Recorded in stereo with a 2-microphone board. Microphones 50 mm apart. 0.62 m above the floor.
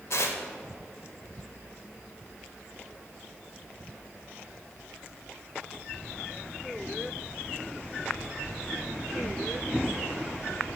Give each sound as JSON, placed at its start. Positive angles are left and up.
{"t": 0.1, "sound": "tearing paper", "side_deg": 65, "distance_m": 0.6}